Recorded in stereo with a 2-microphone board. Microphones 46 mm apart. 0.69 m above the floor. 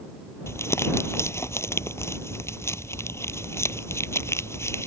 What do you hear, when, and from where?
0.5 s crumpling: 80° left